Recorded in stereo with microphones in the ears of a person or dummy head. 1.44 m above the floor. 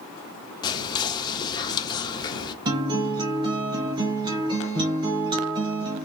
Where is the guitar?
20° right (ahead or behind), 0.8 m.